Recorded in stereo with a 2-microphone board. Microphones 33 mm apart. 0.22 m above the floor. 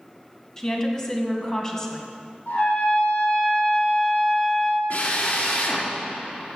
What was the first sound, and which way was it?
A woman speaking, 20° left (ahead or behind).